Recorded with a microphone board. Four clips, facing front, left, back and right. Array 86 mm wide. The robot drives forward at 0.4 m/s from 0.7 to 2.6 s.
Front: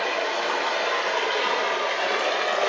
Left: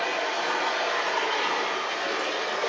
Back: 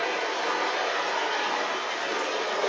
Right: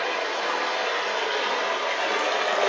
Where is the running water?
20° right, 1.2 m; by 2.7 s 55° right, 0.6 m.